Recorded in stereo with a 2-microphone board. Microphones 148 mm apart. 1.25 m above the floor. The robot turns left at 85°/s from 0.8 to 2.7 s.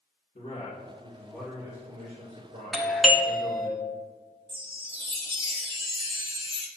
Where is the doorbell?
Centre (ahead or behind), 0.9 m.